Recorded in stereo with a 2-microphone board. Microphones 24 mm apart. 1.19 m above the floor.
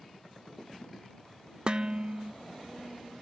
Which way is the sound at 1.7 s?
40° right (ahead or behind).